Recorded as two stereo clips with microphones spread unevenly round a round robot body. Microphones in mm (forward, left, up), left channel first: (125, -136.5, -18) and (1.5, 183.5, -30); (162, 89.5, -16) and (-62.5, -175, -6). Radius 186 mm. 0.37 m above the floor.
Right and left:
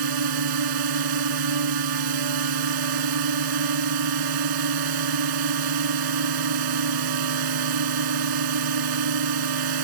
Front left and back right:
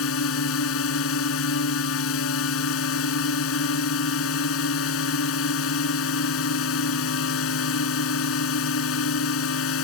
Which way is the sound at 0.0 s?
105° left.